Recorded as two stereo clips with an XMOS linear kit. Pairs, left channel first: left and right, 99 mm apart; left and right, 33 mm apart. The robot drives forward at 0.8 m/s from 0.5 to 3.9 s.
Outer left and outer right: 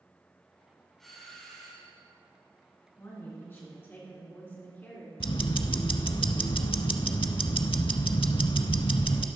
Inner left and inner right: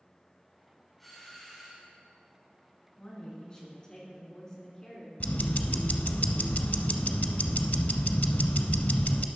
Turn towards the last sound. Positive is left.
turn(degrees=65)  # may be behind; listen again after turning